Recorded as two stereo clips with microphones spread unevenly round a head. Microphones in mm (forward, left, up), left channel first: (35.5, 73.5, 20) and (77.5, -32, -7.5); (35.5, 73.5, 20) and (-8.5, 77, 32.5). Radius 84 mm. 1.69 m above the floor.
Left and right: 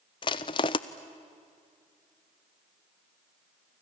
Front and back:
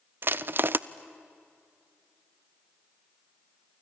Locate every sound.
0.2 s crushing: 160° left, 0.5 m